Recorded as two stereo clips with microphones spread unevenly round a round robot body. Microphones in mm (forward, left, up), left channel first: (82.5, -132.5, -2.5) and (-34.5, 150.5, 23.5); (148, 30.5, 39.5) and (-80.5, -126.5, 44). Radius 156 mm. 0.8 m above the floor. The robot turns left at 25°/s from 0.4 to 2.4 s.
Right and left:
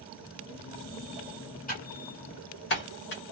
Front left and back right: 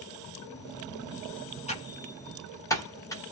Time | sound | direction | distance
1.7 | typing on a keyboard | 20° right | 1.3 m